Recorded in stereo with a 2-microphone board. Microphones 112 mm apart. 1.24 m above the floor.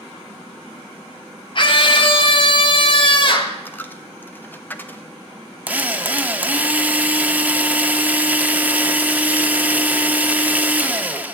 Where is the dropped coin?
15° left (ahead or behind), 0.8 m.